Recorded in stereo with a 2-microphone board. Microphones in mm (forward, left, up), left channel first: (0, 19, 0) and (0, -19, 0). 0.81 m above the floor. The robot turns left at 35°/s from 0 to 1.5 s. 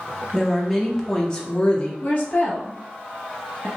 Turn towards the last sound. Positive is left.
turn(degrees=35)  # may be behind; listen again after turning